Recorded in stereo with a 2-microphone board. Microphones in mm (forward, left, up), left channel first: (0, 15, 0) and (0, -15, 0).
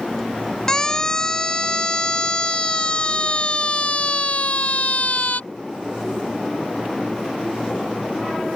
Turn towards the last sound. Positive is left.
turn(degrees=55)  # may be behind; listen again after turning